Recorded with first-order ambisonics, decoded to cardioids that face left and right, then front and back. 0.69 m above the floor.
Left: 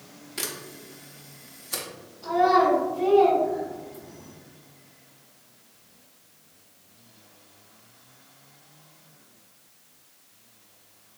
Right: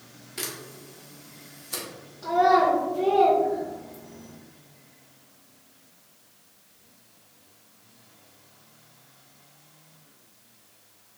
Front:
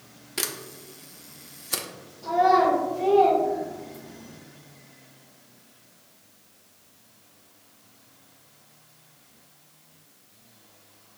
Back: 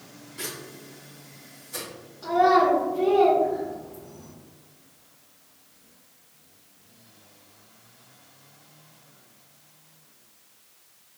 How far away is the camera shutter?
About 0.6 m.